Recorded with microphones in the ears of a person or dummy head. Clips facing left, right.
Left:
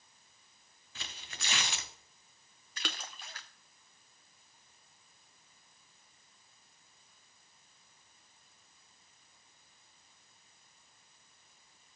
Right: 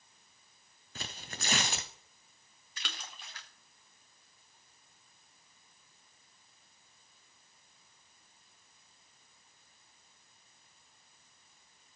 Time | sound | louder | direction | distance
0.9 | tearing paper | right 6 dB | 40° right (ahead or behind) | 0.7 m
2.8 | a splash | left 5 dB | 35° left (ahead or behind) | 0.6 m